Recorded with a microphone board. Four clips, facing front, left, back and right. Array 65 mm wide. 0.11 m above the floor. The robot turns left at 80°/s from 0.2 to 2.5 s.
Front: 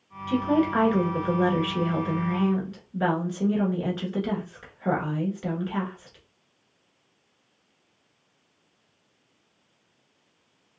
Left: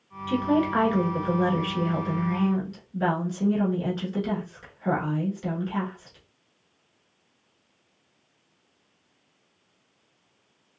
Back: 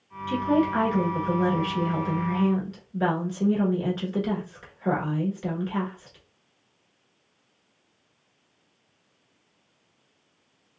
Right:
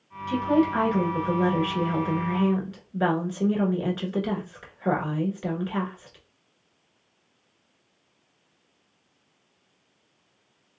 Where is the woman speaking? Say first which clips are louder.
Right 1 dB, even; 100° left, 1.2 m; by 6.2 s 80° right, 1.2 m.